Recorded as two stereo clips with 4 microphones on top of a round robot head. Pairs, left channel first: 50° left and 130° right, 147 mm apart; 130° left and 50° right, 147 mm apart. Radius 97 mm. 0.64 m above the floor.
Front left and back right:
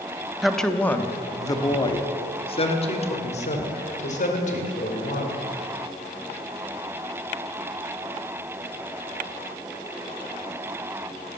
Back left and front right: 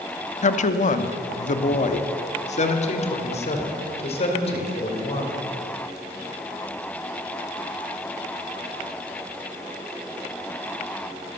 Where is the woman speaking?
140° left, 1.0 m; by 5.4 s 80° left, 3 m.